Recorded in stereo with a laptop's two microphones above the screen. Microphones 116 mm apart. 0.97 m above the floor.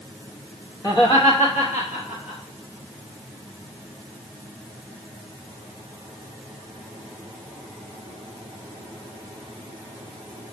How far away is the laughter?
About 1.0 m.